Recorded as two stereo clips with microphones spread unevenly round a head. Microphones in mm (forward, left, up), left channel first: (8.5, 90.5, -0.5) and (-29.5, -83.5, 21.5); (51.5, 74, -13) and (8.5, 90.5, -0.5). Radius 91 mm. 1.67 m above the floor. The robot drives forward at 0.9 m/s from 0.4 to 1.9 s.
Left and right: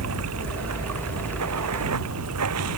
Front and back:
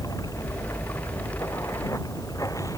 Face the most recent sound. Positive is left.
turn(degrees=-95)